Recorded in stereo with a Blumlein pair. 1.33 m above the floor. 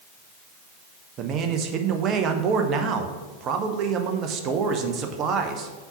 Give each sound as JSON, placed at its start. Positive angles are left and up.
{"t": 1.2, "sound": "a man speaking", "azimuth_deg": -30, "distance_m": 0.9}